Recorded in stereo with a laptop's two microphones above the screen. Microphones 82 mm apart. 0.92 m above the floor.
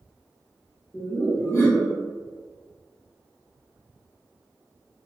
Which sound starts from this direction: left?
Laughter, at 0.9 s.